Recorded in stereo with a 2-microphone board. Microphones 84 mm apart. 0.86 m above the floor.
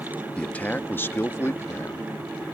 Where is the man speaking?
15° left (ahead or behind); by 2.1 s 35° left (ahead or behind).